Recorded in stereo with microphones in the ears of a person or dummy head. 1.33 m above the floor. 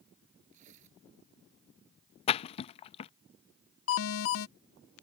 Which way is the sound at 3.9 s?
65° left (ahead or behind).